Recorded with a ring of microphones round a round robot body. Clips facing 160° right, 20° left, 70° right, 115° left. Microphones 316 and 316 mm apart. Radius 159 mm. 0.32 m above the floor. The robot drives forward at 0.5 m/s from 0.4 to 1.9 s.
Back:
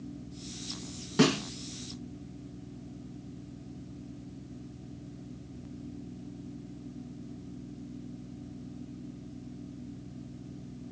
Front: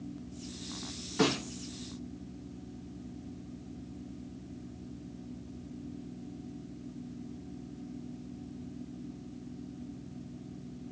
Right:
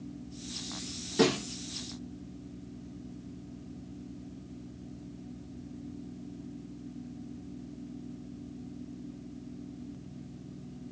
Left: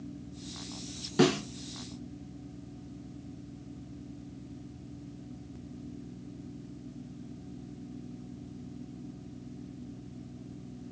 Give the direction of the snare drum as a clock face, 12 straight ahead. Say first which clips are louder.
Back 4 dB, left 1 dB; 6 o'clock.